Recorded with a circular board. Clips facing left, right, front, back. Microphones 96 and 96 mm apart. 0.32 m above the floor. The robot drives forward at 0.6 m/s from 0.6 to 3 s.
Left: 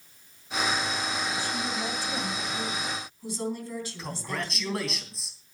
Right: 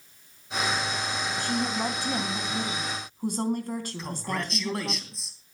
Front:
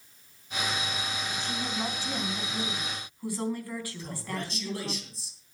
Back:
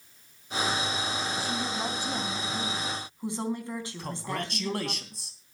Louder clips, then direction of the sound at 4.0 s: Right 2 dB, back 2 dB; straight behind.